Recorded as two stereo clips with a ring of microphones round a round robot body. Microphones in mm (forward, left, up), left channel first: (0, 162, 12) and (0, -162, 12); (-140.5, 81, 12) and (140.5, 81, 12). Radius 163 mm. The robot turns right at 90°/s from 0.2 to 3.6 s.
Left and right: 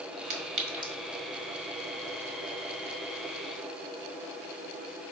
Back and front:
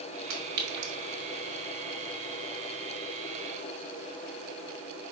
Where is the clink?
60° right, 1.6 m; by 0.9 s 5° right, 1.6 m.